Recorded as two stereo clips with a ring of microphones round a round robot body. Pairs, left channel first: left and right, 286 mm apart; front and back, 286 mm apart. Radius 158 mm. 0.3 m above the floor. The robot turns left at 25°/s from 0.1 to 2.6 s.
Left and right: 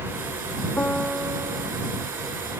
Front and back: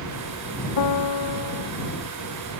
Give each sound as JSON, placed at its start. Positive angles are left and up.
{"t": 0.8, "sound": "a piano", "azimuth_deg": 5}